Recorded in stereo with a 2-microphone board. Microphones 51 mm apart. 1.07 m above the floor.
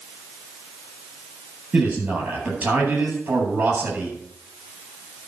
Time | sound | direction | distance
1.7 | a man speaking | 35° right (ahead or behind) | 9 m